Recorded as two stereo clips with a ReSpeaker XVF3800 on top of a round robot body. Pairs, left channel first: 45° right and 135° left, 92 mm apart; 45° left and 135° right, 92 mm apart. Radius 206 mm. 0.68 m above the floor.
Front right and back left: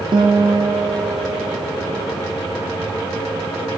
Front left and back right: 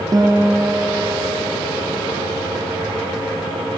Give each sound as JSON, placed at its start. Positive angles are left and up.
{"t": 0.1, "sound": "a guitar", "azimuth_deg": 175, "distance_m": 1.0}